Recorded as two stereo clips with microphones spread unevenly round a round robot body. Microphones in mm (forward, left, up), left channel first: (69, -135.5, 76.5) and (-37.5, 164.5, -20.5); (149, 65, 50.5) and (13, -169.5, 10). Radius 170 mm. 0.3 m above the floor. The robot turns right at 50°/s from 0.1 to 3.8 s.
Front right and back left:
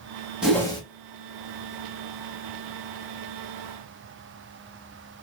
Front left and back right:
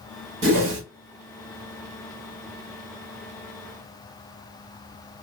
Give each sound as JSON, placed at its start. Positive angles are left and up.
{"t": 0.4, "sound": "a whoosh", "azimuth_deg": -170, "distance_m": 0.6}